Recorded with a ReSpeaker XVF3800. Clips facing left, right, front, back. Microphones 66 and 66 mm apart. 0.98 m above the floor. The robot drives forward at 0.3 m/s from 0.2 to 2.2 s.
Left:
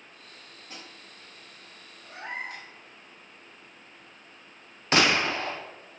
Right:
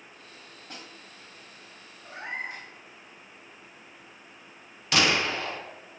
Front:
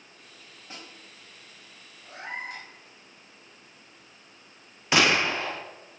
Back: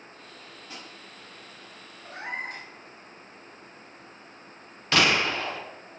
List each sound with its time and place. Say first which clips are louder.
0.7 s a snare drum: right 1 dB, even; 55° right, 1.5 m
2.0 s a cat meowing: right 1 dB, back 2 dB; 145° right, 0.7 m; by 2.7 s 150° right, 0.7 m
4.9 s a gunshot: left 2 dB, front 1 dB; 60° left, 0.5 m